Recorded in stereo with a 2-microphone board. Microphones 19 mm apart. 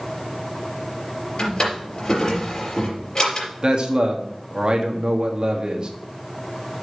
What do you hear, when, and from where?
1.4 s a drawer: 50° left (ahead or behind), 4 m
3.6 s a man speaking: 50° right (ahead or behind), 1.6 m